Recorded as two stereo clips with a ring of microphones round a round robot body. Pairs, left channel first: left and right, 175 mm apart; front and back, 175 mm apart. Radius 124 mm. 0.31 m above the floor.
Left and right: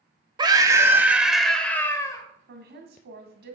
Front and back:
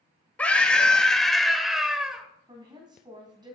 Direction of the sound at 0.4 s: 75° right.